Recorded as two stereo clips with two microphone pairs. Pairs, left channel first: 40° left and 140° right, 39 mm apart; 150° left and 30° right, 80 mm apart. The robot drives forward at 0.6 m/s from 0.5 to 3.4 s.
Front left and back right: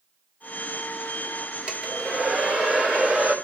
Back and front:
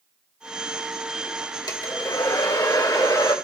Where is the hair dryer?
165° left, 2 m; by 3.4 s 170° left, 3 m.